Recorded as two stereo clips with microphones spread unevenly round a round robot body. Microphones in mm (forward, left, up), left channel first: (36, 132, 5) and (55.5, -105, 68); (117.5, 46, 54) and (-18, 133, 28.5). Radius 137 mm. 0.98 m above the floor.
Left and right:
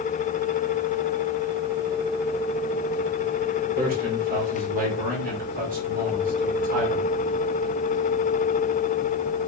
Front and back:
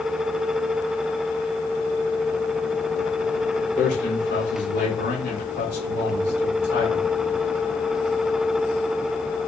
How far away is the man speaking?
About 5 m.